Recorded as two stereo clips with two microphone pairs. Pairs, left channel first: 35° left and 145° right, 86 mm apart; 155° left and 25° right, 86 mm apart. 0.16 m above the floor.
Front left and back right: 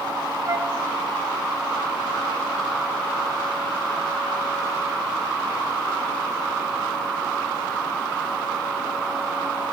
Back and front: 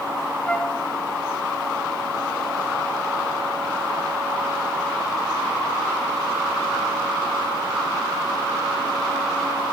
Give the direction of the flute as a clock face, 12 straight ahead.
5 o'clock.